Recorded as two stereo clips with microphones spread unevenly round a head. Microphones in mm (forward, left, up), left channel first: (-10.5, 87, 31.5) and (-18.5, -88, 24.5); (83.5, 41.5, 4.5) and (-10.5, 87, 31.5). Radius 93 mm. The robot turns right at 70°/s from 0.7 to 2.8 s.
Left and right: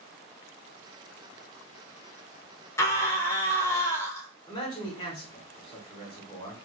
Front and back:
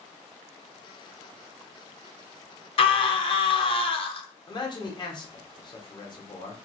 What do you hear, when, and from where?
2.8 s a scream: 15° left, 0.7 m
4.5 s a man speaking: 25° left, 0.9 m